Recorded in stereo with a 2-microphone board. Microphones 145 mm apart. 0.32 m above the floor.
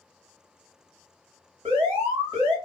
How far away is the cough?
I don't hear a cough.